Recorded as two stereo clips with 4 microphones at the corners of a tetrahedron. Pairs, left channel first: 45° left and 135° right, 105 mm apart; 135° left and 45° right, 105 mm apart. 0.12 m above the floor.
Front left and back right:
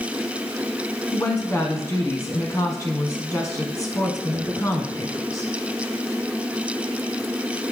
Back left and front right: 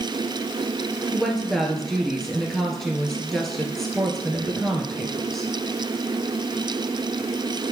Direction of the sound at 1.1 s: 50° left.